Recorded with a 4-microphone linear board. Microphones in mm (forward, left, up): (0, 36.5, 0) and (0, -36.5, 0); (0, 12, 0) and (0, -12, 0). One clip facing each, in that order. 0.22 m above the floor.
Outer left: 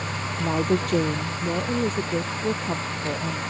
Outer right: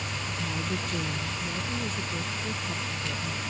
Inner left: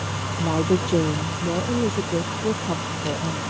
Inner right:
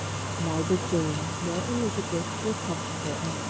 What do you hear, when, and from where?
0.4 s a woman speaking: 60° left (ahead or behind); by 3.4 s 50° left (ahead or behind)